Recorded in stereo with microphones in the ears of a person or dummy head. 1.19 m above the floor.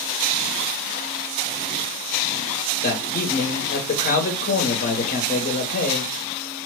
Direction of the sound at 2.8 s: 40° left (ahead or behind).